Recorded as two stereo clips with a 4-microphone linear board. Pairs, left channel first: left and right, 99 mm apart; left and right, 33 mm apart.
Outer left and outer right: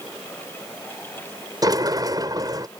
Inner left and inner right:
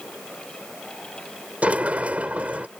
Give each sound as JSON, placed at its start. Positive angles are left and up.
{"t": 1.6, "sound": "a sliding door", "side_deg": -40}